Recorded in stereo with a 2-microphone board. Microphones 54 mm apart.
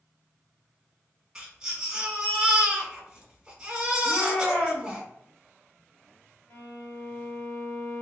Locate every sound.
1.4 s a baby crying: 15° right (ahead or behind), 1.2 m
4.0 s a shout: 35° left (ahead or behind), 1.1 m
6.5 s a violin: 40° left (ahead or behind), 1.4 m